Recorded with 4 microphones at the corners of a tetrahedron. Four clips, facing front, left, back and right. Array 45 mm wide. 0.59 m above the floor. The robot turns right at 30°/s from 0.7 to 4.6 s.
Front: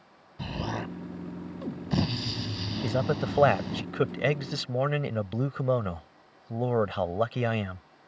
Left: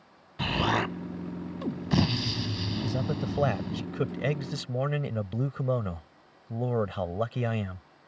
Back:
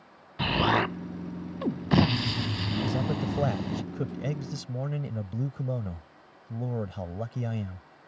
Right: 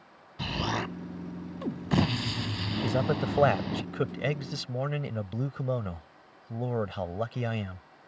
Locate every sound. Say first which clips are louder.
0.4 s an explosion: left 5 dB, back 9 dB; 165° left; by 3.8 s 100° right
2.8 s a man speaking: right 6 dB, front 5 dB; 40° right; by 7.8 s 10° left